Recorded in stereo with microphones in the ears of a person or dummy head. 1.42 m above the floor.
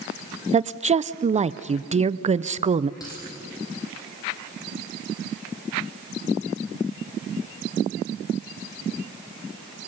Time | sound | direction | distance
0.5 | a woman speaking | 30° right (ahead or behind) | 0.6 m
3.0 | a dropped coin | 20° left (ahead or behind) | 4.5 m